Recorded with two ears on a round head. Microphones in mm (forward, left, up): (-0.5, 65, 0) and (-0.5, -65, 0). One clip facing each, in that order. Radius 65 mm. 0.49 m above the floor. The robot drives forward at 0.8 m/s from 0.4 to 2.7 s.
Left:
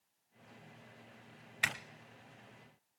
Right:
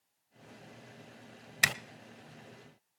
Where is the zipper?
50° right (ahead or behind), 0.6 m; by 1.7 s 45° right (ahead or behind), 0.6 m.